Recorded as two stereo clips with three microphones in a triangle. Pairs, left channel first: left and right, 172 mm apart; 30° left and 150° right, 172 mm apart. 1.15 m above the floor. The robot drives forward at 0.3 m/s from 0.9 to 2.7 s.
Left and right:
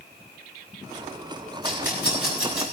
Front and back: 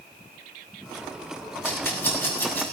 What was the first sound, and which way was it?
A rattle, 105° left.